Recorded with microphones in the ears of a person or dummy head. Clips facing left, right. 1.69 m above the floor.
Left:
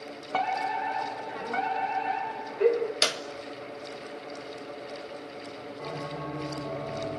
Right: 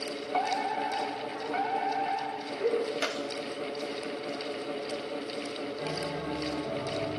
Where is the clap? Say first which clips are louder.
Left 1 dB; 60° left (ahead or behind), 2 m.